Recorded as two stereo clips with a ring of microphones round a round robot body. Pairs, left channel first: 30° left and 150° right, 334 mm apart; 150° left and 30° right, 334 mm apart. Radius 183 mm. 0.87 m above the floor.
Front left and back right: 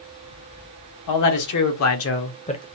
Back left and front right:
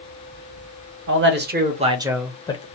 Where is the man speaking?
20° left, 1.1 m; by 2.7 s 95° left, 0.7 m.